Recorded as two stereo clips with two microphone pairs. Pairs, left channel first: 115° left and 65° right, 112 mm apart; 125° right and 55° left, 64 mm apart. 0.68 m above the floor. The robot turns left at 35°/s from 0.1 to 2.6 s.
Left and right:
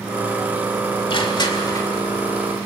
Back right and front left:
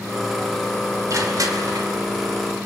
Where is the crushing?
80° left, 2 m; by 1.9 s 55° left, 2 m.